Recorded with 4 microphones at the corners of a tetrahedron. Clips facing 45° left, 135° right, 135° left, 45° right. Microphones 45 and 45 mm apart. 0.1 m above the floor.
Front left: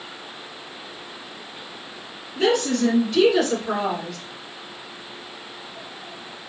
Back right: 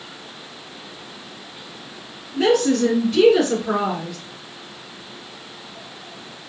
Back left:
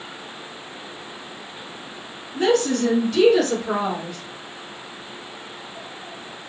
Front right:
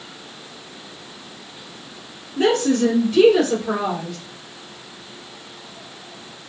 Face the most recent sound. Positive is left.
turn(degrees=170)